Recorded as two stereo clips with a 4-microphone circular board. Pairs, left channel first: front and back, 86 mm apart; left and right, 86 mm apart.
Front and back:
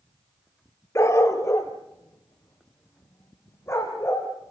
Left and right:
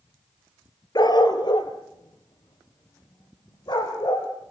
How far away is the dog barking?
About 1.4 m.